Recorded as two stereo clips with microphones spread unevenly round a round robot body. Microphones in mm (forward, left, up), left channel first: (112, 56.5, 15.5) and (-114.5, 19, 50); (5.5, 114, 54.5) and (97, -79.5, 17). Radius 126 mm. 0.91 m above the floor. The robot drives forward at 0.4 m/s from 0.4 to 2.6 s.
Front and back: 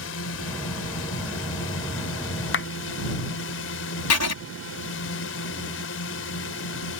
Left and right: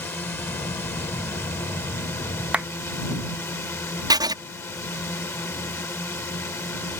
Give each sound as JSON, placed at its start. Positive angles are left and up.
{"t": 0.0, "sound": "a drone", "azimuth_deg": 35}
{"t": 2.5, "sound": "a clap", "azimuth_deg": 15}
{"t": 4.1, "sound": "writing", "azimuth_deg": 5}